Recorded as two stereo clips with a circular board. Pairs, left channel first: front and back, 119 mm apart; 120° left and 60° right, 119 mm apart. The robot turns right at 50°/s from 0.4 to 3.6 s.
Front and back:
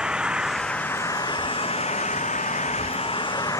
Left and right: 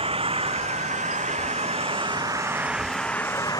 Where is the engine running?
95° right; by 3.6 s 65° left.